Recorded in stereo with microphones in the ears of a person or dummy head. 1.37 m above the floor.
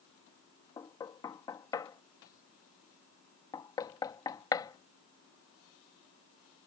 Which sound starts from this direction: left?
Knocking, at 0.8 s.